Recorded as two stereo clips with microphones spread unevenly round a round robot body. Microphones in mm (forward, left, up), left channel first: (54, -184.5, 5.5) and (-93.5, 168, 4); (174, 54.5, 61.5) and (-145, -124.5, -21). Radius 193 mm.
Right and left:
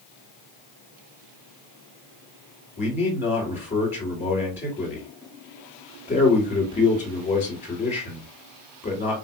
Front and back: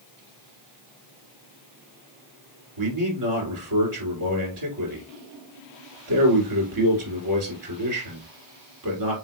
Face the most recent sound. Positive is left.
turn(degrees=-140)